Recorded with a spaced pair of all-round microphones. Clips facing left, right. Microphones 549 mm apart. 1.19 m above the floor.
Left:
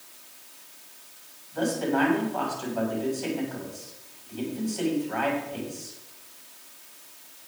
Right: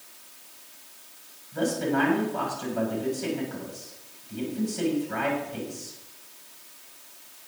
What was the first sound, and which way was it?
A man speaking, 45° right (ahead or behind).